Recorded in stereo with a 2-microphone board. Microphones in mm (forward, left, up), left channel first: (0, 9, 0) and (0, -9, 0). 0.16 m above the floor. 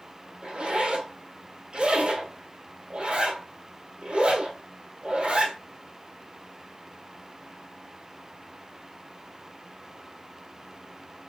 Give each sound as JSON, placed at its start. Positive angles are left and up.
{"t": 0.4, "sound": "a zipper", "side_deg": -60, "distance_m": 1.3}